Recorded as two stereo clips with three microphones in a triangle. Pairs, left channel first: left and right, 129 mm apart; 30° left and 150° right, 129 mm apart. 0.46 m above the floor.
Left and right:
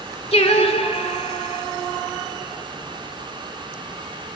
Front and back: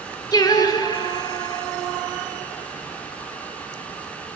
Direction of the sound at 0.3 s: 80° left.